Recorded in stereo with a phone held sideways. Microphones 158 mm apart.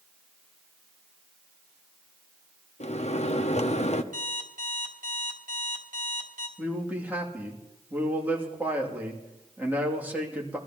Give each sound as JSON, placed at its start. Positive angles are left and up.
{"t": 2.8, "sound": "a microwave", "side_deg": 45, "distance_m": 0.7}
{"t": 4.1, "sound": "an alarm clock", "side_deg": -60, "distance_m": 2.0}
{"t": 6.6, "sound": "a man speaking", "side_deg": -10, "distance_m": 2.5}